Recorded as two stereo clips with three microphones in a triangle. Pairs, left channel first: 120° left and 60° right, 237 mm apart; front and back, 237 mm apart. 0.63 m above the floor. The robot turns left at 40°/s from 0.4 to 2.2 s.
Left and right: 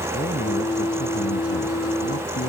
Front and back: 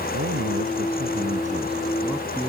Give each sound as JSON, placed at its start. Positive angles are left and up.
{"t": 0.1, "sound": "a man speaking", "azimuth_deg": 165}